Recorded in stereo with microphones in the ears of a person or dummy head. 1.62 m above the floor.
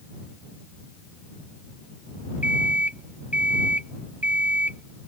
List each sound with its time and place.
2.4 s an alarm clock: 15° right (ahead or behind)